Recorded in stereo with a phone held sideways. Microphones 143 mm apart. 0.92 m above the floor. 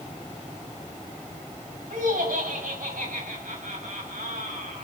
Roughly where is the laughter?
Right.